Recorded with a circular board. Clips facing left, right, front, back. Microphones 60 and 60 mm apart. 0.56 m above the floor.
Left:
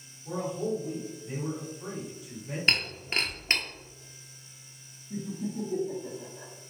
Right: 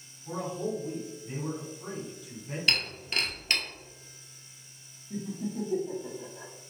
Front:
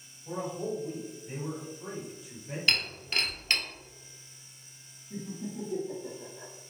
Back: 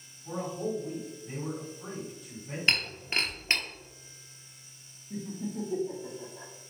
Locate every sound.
0.2 s a man speaking: 165° left, 2.0 m
2.7 s breaking glass: 130° left, 0.7 m
5.1 s laughter: 140° right, 0.8 m